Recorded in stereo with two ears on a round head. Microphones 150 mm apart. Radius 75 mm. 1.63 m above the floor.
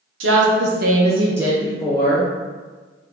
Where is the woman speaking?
75° right (ahead or behind), 0.8 m; by 2.3 s 30° left (ahead or behind), 0.8 m.